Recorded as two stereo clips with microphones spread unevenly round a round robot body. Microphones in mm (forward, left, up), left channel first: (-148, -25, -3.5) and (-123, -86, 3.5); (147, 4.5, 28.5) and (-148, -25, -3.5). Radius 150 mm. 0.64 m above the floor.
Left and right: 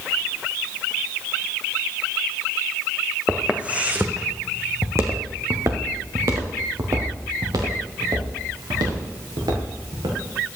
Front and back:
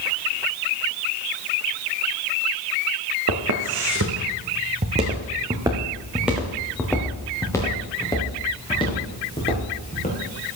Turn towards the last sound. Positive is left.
turn(degrees=-60)